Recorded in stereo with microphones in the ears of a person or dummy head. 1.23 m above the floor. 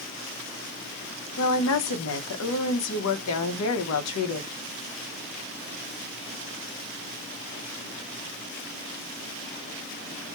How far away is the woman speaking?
About 0.7 m.